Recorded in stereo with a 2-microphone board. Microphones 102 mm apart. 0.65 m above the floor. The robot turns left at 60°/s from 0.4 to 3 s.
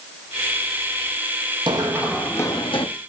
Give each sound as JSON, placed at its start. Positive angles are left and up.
{"t": 1.7, "sound": "running footsteps", "side_deg": -50, "distance_m": 1.3}